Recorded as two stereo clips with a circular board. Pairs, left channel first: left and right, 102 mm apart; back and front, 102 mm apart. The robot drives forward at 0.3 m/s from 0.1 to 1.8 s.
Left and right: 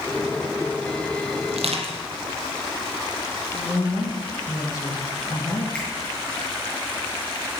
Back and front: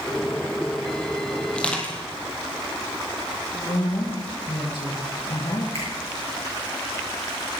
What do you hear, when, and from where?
1.5 s crushing: 100° right, 2.5 m
3.5 s a woman speaking: 145° left, 4 m
5.7 s a finger snap: 10° left, 6.5 m